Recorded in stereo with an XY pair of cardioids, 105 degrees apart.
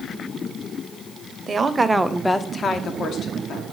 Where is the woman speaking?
35° right, 0.9 m; by 3.6 s 65° left, 1.6 m.